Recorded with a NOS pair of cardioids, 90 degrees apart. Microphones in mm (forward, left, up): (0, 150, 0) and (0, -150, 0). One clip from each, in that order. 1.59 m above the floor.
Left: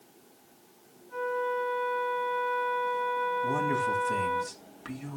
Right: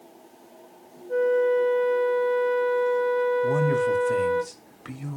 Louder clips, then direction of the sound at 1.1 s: Right 9 dB; 55° right.